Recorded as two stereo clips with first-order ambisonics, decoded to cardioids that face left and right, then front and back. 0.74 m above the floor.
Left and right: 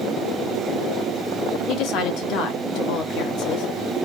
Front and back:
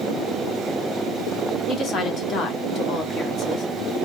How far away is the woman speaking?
About 1.2 m.